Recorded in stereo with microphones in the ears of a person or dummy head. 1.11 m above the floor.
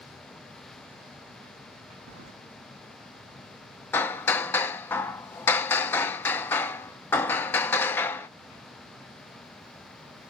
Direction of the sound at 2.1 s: 75° right (ahead or behind).